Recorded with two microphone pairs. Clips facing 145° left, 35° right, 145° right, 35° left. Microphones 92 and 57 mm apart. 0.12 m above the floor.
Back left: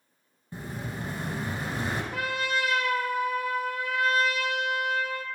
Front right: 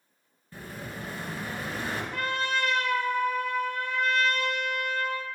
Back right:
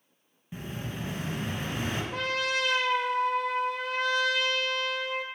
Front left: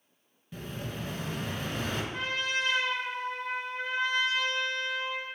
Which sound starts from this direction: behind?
An explosion, at 0.5 s.